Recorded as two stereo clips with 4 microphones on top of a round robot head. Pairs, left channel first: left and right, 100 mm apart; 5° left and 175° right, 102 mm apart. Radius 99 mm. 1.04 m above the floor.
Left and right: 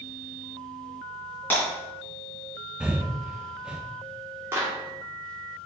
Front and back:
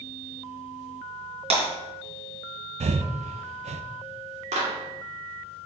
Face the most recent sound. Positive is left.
turn(degrees=-160)